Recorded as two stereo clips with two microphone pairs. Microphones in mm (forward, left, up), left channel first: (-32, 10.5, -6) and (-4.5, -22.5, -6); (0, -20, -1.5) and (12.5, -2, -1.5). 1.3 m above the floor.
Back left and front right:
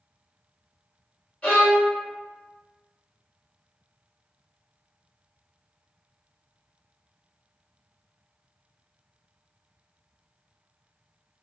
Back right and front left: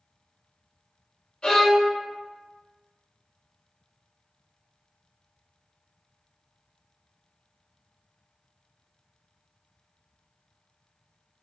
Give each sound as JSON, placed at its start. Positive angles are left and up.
{"t": 1.4, "sound": "a violin", "azimuth_deg": -170, "distance_m": 1.6}